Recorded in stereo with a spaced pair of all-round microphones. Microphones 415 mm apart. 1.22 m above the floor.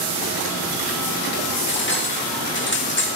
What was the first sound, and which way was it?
Cutlery clinking, 25° left (ahead or behind).